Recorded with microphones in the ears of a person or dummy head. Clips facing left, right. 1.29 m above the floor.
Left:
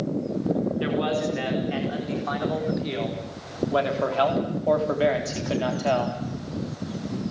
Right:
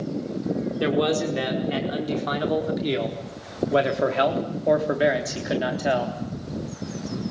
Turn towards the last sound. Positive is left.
turn(degrees=-5)  # may be behind; listen again after turning